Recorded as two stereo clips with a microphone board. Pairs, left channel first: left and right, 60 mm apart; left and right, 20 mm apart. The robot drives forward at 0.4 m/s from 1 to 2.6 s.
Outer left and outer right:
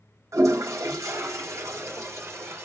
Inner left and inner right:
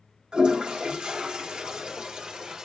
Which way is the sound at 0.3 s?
55° right (ahead or behind).